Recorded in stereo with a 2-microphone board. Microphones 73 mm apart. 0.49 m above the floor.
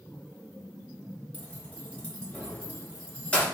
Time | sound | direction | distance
1.3 | keys jangling | 20° left (ahead or behind) | 0.9 m